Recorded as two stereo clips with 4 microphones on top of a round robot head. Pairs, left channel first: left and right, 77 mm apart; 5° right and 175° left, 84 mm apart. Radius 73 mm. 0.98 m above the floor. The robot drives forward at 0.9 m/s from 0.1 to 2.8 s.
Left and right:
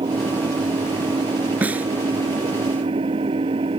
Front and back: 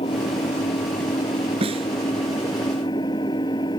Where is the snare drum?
160° right.